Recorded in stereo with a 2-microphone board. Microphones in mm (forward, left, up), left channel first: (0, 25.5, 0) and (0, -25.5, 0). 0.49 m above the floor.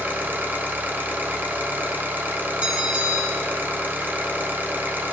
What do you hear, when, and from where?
0.0 s an engine running: 40° right (ahead or behind), 0.8 m
2.6 s a bell: 25° right (ahead or behind), 1.3 m